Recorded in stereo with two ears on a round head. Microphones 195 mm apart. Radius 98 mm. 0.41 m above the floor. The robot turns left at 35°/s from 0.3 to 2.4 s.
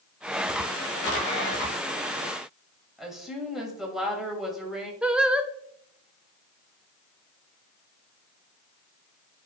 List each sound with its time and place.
3.0 s a woman speaking: centre (ahead or behind), 1.9 m
5.0 s singing: 5° right (ahead or behind), 0.5 m